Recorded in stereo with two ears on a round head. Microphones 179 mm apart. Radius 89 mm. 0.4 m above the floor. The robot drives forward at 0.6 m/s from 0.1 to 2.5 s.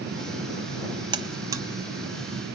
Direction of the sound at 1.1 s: 25° right (ahead or behind).